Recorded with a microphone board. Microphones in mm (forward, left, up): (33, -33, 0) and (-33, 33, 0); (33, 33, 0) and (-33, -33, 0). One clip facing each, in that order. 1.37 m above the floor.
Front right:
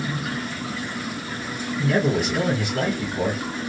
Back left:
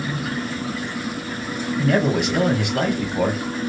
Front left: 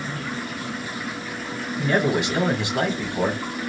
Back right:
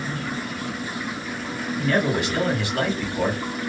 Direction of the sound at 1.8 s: 115° left.